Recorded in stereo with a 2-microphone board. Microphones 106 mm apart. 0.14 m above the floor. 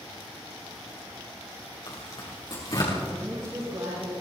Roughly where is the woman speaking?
Right.